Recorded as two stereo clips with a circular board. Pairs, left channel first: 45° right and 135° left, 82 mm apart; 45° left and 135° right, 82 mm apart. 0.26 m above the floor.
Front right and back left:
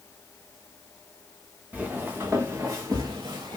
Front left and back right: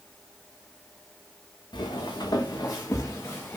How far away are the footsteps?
About 1.1 m.